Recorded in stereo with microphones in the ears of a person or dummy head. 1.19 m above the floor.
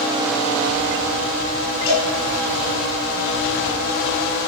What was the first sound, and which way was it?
A cowbell, 80° left.